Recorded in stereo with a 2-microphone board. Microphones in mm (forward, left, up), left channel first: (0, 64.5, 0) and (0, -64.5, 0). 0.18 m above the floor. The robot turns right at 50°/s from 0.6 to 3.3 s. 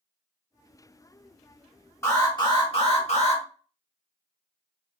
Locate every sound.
2.0 s an alarm: 25° left, 1.5 m; by 3.4 s 90° left, 1.5 m